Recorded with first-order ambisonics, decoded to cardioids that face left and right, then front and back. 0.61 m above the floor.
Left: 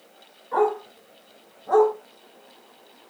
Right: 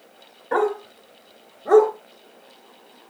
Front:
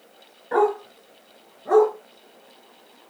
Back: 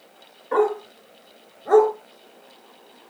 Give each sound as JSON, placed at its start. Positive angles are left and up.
{"t": 0.5, "sound": "a dog barking", "azimuth_deg": -75, "distance_m": 3.5}